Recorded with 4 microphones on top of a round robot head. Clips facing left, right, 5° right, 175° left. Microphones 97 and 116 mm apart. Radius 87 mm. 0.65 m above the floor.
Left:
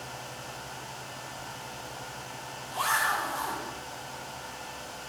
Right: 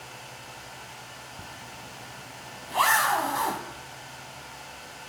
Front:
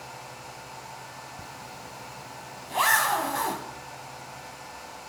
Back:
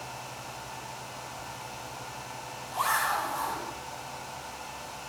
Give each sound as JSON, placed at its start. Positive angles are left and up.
{"t": 1.4, "sound": "a zipper", "azimuth_deg": -45, "distance_m": 1.9}